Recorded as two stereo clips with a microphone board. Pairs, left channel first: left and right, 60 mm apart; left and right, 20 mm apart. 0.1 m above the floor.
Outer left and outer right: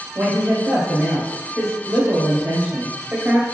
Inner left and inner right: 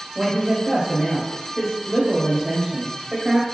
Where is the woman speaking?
30° right (ahead or behind), 1.7 m.